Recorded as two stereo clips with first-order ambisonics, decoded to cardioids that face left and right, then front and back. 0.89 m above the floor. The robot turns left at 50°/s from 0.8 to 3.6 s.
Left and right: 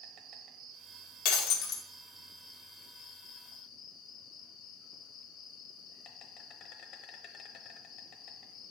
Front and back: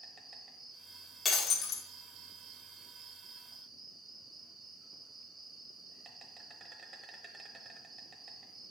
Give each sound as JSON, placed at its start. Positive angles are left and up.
{"t": 0.0, "sound": "an insect", "azimuth_deg": -110, "distance_m": 0.9}
{"t": 1.2, "sound": "breaking glass", "azimuth_deg": 75, "distance_m": 1.0}